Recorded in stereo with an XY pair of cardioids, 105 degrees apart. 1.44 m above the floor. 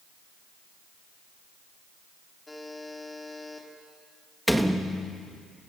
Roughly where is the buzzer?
Ahead.